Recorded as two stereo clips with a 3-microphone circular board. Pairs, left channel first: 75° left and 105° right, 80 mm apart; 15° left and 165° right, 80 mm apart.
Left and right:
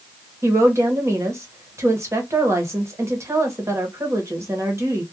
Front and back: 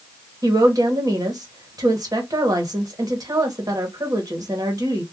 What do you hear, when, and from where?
0.4 s a woman speaking: 150° right, 1.0 m